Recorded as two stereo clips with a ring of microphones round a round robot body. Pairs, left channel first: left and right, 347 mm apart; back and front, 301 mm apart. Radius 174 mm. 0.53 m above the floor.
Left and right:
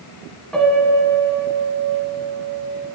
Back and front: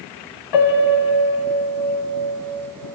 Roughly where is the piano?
Behind.